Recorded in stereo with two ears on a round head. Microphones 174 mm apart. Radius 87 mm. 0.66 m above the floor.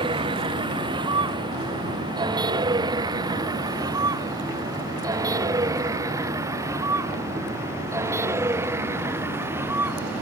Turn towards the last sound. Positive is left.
turn(degrees=-10)  # may be behind; listen again after turning